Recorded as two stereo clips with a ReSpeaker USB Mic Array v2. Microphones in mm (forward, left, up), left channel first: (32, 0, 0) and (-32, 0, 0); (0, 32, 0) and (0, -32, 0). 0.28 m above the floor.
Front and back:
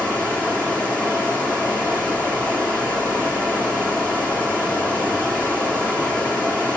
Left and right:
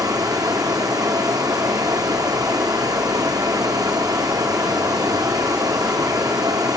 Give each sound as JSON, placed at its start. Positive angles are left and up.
{"t": 0.0, "sound": "running water", "azimuth_deg": -70, "distance_m": 2.5}